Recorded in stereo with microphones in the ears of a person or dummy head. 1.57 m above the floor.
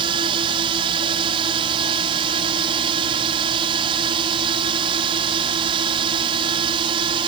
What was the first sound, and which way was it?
A drone, 30° right (ahead or behind).